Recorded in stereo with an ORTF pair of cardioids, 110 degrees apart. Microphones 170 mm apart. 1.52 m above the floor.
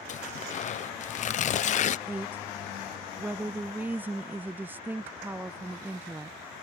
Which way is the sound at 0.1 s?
45° left.